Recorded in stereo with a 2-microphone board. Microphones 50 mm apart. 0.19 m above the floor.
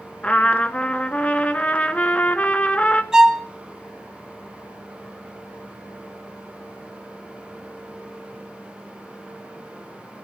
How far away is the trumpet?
About 0.6 m.